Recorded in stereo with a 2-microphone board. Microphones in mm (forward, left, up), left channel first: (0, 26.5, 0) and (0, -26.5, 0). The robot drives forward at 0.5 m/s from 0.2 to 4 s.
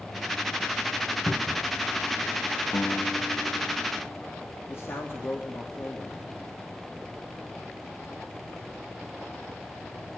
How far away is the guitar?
About 0.6 m.